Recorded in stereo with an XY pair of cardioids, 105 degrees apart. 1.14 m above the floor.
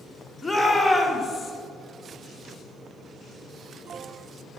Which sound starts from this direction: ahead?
A shout, at 0.4 s.